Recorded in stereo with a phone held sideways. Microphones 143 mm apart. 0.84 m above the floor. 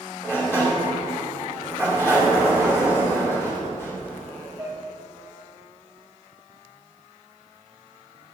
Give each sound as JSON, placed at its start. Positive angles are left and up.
{"t": 0.2, "sound": "a sliding door", "side_deg": 15, "distance_m": 2.5}